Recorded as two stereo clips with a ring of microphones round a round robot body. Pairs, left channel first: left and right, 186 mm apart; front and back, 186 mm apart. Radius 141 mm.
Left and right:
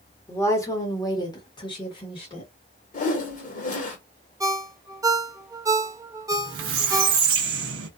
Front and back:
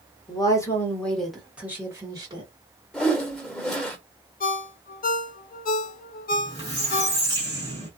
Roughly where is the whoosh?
Left.